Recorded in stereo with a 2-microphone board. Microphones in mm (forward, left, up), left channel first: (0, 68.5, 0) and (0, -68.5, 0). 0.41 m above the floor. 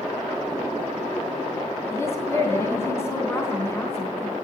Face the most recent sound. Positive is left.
turn(degrees=20)  # may be behind; listen again after turning